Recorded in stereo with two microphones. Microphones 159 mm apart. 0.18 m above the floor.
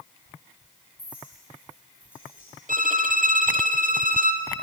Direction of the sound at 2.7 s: 70° right (ahead or behind).